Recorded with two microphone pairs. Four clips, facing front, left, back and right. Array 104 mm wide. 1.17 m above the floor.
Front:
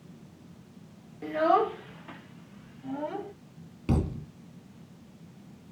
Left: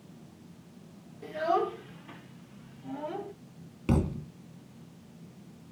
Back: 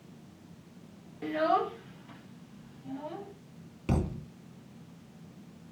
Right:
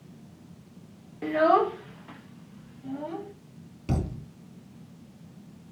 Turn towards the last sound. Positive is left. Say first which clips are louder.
# left 3 dB, front 2 dB
turn(degrees=100)